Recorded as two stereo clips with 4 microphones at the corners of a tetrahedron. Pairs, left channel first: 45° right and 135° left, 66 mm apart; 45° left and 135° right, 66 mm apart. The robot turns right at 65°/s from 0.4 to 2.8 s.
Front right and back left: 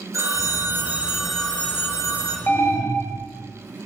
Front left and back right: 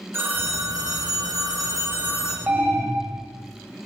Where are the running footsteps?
No running footsteps in this recording.